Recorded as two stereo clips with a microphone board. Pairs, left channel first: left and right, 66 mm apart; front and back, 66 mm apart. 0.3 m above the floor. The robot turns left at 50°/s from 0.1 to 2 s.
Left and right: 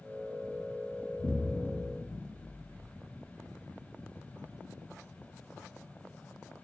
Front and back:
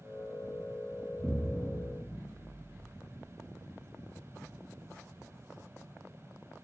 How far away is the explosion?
About 1.3 m.